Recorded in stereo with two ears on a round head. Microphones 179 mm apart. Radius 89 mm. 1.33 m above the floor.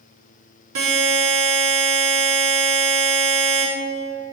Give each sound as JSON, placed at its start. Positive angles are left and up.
{"t": 0.8, "sound": "a buzzer", "side_deg": -80, "distance_m": 4.0}